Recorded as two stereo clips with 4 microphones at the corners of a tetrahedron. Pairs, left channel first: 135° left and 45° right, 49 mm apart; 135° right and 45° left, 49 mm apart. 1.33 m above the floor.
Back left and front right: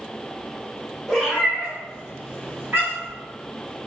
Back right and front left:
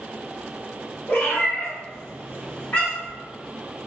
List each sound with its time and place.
1.1 s a cat meowing: 140° right, 0.9 m; by 3.2 s 80° right, 1.4 m